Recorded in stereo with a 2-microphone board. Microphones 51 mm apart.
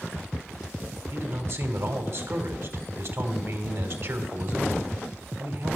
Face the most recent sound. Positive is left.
turn(degrees=-55)  # may be behind; listen again after turning